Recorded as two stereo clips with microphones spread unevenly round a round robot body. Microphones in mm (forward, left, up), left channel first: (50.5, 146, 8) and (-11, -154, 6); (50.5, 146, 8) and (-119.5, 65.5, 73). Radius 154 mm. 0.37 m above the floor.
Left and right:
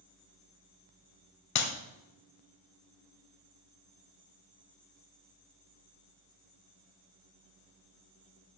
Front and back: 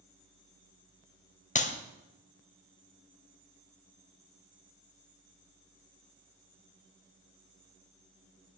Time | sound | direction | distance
1.6 | a clap | 50° left | 1.5 m